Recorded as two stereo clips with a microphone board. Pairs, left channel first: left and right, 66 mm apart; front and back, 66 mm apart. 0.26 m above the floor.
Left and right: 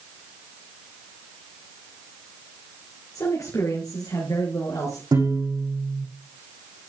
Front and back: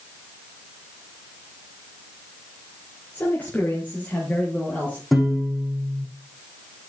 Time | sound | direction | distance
3.1 | a man speaking | 55° left | 6 m
5.1 | a piano | 90° right | 6 m